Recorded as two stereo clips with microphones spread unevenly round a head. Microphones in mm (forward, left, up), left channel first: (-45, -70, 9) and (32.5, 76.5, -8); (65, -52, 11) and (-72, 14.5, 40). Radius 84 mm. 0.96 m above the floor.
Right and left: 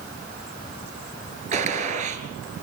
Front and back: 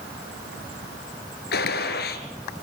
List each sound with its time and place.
1.5 s a gunshot: 10° left, 2.5 m